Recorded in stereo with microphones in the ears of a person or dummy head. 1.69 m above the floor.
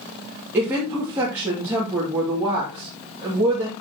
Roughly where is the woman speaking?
Centre.